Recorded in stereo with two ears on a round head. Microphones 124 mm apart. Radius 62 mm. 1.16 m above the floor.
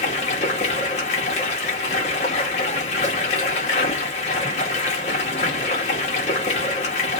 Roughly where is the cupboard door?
I don't hear a cupboard door.